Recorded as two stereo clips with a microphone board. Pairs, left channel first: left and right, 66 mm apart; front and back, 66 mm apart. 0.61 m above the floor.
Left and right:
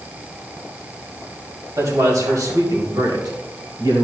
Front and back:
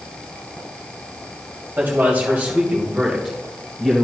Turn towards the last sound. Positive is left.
turn(degrees=-85)